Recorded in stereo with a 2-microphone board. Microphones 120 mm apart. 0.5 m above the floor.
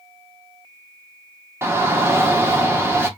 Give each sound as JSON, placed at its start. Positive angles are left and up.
{"t": 1.6, "sound": "a shout", "side_deg": -20, "distance_m": 0.7}